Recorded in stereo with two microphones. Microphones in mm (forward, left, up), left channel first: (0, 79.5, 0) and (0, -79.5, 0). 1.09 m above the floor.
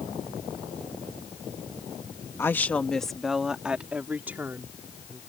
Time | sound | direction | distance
2.4 | a woman speaking | 15° left (ahead or behind) | ?